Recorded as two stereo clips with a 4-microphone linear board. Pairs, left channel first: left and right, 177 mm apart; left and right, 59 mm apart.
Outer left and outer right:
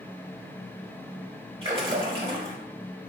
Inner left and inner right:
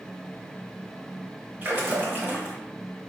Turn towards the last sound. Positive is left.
turn(degrees=-30)  # may be behind; listen again after turning